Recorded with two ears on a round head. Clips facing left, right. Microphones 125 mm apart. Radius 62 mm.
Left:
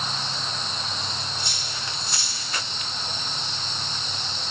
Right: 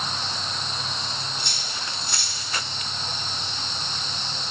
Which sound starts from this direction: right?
Cutlery clinking, at 1.4 s.